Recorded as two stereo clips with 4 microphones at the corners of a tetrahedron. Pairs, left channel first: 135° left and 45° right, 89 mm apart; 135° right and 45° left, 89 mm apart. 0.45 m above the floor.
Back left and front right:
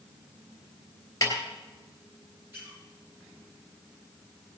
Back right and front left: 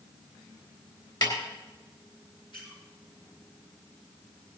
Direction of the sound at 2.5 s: 105° right.